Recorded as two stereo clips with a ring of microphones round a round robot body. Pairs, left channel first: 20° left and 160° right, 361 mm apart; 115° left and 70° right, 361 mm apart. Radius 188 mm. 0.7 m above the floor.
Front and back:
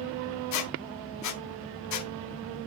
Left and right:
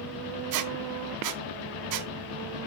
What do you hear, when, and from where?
0.5 s a squeak: 25° right, 0.7 m